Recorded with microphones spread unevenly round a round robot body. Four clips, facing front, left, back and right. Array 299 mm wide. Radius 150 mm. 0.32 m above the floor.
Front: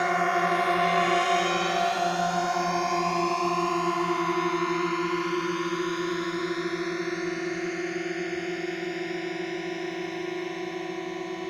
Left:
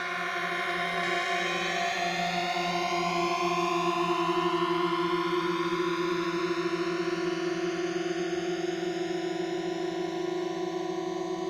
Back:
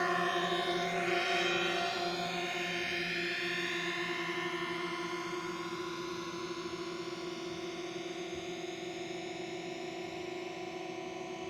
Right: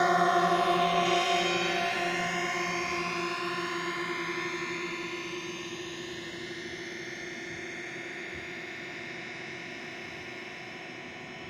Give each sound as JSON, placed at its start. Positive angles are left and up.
{"t": 0.0, "sound": "a drone", "azimuth_deg": -60}